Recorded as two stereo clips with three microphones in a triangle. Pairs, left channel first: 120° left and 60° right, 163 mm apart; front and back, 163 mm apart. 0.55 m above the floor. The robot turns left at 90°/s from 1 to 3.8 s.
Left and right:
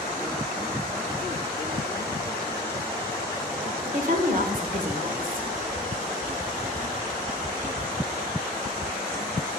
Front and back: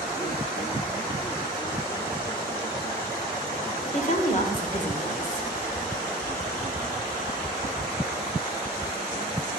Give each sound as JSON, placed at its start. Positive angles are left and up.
{"t": 3.9, "sound": "a woman speaking", "azimuth_deg": -35, "distance_m": 1.6}